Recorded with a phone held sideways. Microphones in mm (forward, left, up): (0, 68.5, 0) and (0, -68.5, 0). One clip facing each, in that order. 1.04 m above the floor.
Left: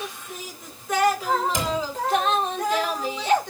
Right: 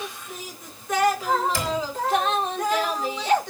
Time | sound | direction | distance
1.5 | a cupboard door | 20° left (ahead or behind) | 3.5 m